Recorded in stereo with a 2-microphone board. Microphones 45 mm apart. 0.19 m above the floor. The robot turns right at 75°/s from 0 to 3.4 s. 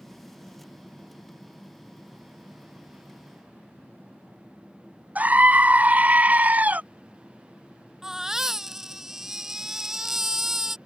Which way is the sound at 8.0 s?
10° right (ahead or behind).